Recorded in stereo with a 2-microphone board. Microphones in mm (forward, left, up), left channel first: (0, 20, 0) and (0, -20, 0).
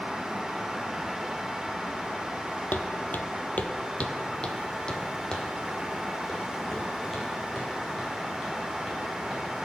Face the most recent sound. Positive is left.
turn(degrees=0)  # may be behind; listen again after turning